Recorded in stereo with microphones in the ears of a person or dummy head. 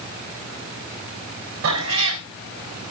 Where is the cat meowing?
80° right, 3 m.